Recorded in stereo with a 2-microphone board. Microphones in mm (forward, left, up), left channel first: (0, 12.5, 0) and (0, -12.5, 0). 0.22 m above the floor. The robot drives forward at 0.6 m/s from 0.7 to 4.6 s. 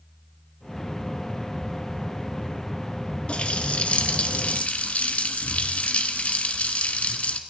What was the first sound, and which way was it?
A running tap, 50° left (ahead or behind).